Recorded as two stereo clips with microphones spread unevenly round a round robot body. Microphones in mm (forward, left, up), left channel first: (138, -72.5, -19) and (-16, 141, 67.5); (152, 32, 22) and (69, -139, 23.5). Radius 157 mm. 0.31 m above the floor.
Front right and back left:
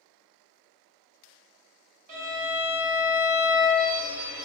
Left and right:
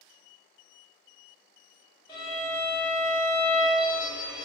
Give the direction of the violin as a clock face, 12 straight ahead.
8 o'clock.